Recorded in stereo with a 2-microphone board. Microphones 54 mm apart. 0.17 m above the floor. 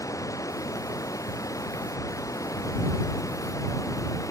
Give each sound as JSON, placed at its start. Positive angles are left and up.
{"t": 0.0, "sound": "running water", "side_deg": 75}